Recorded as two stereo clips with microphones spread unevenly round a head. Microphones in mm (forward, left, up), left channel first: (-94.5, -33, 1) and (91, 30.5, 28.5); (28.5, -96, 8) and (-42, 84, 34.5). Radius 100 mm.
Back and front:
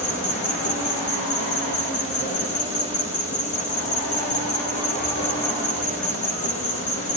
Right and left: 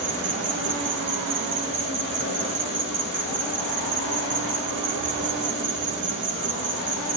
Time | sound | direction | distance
0.0 | an insect | 145° left | 3.5 m